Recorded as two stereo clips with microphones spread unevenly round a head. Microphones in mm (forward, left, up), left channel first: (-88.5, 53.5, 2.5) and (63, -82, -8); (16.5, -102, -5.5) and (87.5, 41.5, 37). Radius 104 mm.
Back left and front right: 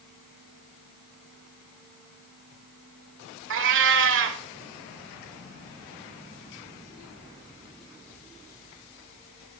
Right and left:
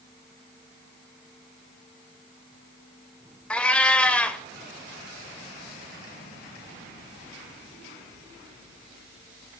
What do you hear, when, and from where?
3.5 s a cat meowing: 25° right, 1.6 m